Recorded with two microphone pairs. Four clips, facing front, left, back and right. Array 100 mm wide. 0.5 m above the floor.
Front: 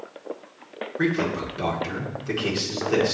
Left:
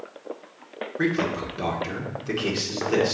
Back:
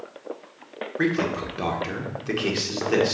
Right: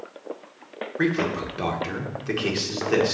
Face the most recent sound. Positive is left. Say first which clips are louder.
# right 1 dB, even
turn(degrees=-125)